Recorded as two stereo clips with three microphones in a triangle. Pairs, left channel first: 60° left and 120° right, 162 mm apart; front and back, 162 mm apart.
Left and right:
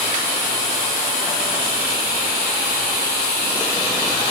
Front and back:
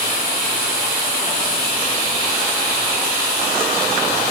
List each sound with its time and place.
Only background noise.